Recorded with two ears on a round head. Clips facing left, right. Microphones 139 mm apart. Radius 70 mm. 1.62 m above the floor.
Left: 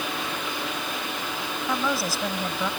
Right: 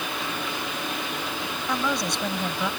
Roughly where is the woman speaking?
Centre.